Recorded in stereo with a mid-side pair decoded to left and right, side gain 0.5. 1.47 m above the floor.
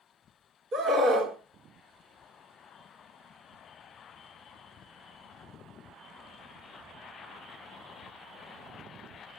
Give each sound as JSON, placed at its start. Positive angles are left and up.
{"t": 0.7, "sound": "a scream", "azimuth_deg": -55, "distance_m": 4.0}